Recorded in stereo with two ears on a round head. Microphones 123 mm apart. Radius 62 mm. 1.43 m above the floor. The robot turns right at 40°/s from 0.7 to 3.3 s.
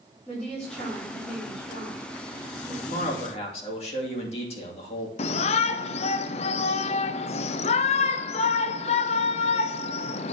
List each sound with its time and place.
0.3 s a woman speaking: 5° left, 3.5 m; by 2.8 s 85° left, 3.5 m
2.9 s a man speaking: 65° left (ahead or behind), 2.5 m; by 5.1 s 45° left (ahead or behind), 2.5 m
5.2 s a shout: 50° left (ahead or behind), 0.5 m